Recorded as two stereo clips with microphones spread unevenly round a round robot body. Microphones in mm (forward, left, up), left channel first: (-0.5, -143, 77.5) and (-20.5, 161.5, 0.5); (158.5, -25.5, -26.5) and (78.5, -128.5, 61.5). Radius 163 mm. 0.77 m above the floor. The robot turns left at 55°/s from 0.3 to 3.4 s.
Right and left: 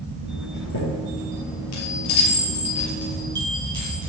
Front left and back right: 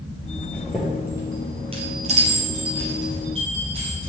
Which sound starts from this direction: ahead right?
A chime, at 0.5 s.